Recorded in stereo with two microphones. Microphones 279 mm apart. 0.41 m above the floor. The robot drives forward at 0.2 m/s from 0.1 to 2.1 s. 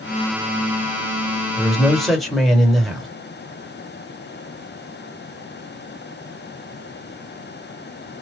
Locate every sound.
1.6 s a man speaking: centre (ahead or behind), 1.7 m